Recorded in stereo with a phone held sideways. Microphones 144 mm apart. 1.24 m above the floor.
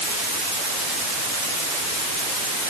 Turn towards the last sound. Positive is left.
No sound to turn to.